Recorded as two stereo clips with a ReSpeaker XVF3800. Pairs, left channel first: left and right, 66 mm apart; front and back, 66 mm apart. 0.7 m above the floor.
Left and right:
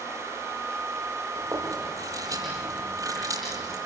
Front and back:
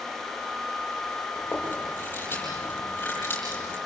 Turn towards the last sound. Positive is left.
turn(degrees=-60)